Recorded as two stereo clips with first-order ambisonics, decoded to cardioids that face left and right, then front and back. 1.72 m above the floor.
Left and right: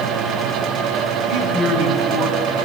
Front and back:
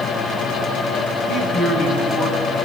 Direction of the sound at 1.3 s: 85° right.